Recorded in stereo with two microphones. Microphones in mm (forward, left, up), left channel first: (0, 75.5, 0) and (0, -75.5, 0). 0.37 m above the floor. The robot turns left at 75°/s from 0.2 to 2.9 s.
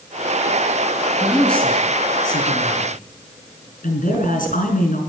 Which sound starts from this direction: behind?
A woman speaking, at 1.2 s.